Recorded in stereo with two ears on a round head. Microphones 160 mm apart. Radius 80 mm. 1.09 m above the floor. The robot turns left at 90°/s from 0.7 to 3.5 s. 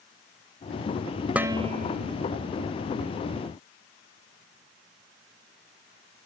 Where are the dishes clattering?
5° right; by 2.1 s 75° right.